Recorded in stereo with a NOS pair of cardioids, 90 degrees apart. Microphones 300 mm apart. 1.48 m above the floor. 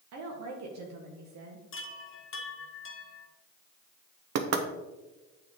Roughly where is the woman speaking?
Ahead right.